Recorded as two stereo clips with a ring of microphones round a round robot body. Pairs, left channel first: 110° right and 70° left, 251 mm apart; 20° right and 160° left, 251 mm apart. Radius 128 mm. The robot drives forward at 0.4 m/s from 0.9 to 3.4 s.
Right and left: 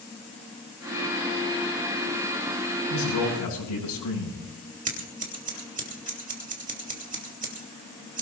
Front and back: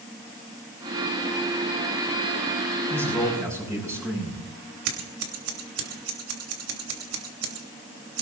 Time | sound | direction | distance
2.9 | a man speaking | 120° right | 8 m
4.8 | scissors | 125° left | 3 m